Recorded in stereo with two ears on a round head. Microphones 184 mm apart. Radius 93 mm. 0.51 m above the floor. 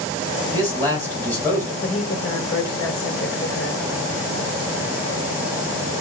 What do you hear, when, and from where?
0.5 s a man speaking: 10° left (ahead or behind), 2.5 m
1.8 s a woman speaking: 55° left (ahead or behind), 1.2 m